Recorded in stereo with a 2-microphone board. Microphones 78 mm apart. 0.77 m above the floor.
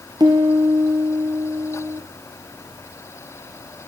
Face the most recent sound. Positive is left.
turn(degrees=-60)  # may be behind; listen again after turning